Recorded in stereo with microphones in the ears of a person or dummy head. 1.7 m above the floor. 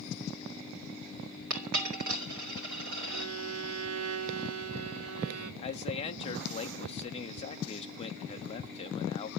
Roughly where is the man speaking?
Left.